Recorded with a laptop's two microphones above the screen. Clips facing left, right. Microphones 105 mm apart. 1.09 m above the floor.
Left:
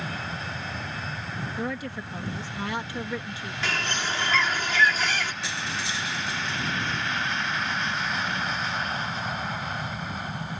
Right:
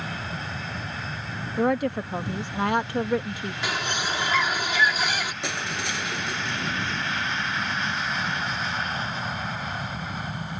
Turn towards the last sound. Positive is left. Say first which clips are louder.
# right 2 dB
turn(degrees=-55)  # may be behind; listen again after turning